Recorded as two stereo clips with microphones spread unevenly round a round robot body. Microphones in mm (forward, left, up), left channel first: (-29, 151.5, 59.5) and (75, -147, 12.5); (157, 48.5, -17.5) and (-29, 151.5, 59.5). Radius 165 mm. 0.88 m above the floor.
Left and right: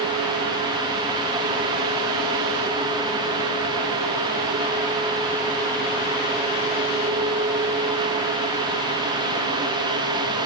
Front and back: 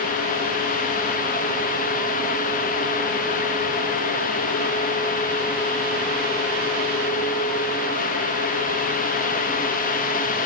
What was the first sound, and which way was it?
Only background noise.